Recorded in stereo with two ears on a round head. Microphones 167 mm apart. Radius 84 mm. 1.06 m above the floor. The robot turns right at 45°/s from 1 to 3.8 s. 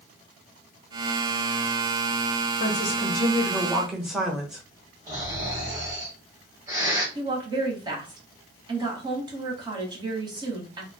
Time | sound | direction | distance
2.6 | a woman speaking | 130° left | 0.9 m
5.1 | snoring | 20° right (ahead or behind) | 1.8 m
7.2 | a woman speaking | 25° right (ahead or behind) | 1.1 m